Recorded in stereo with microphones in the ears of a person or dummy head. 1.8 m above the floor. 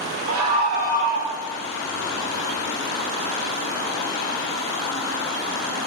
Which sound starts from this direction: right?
A scream, at 0.3 s.